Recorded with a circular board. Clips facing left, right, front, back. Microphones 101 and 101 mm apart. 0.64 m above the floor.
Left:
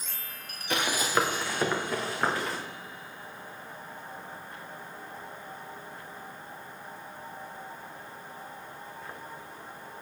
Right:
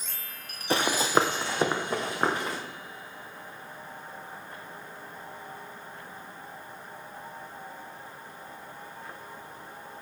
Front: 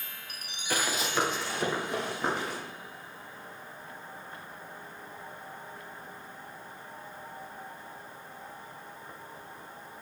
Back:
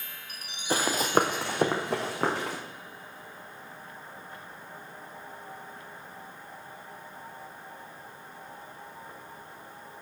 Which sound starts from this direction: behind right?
Running footsteps, at 0.7 s.